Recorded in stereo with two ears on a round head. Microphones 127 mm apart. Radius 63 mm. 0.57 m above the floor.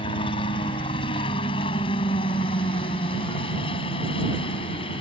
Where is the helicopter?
35° left (ahead or behind); by 5.0 s 40° left (ahead or behind).